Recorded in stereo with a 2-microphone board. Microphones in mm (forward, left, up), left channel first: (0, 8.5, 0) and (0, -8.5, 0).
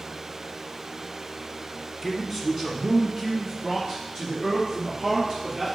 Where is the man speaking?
10° right (ahead or behind), 1.4 m; by 5.7 s 50° right (ahead or behind), 3.5 m.